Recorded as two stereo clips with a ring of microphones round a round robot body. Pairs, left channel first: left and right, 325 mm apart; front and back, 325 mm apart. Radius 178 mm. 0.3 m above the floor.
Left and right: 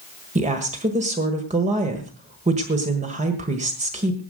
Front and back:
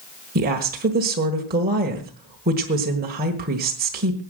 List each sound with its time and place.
0.3 s a woman speaking: 140° right, 1.5 m